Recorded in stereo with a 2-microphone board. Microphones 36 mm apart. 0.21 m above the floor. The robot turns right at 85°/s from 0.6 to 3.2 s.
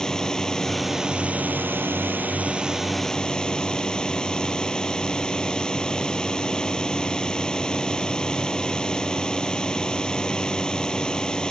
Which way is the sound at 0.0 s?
160° left.